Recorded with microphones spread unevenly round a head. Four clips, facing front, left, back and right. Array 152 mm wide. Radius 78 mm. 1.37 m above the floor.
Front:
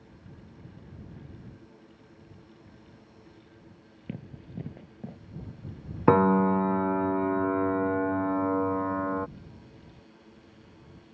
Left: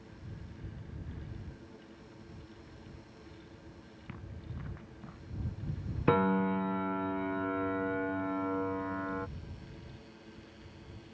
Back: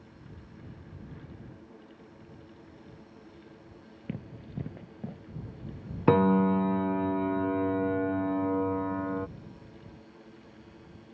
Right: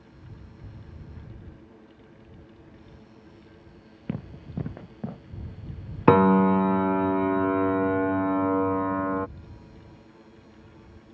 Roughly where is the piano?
Ahead right.